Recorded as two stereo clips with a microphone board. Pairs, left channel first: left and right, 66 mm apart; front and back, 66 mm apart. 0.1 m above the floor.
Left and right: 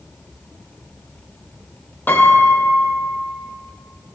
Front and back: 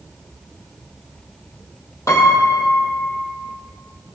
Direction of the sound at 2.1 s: 30° left.